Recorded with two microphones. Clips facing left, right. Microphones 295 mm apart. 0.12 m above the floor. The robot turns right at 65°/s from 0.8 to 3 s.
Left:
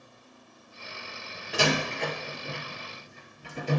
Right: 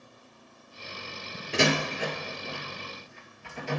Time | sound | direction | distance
1.5 | a door slam | 30° right (ahead or behind) | 1.7 m